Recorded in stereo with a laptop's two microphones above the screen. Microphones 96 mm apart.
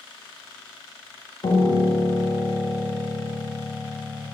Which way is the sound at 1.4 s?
70° left (ahead or behind).